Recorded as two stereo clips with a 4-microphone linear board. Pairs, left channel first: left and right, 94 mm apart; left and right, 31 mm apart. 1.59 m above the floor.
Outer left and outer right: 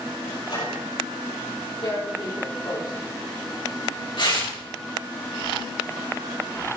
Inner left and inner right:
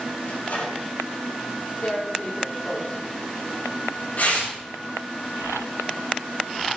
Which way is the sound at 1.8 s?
55° left (ahead or behind).